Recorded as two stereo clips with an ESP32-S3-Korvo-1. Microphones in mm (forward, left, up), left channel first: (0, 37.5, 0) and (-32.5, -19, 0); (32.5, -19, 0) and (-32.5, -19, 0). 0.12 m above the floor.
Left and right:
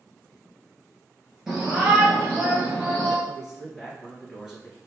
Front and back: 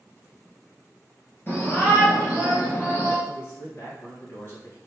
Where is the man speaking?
35° right, 2 m.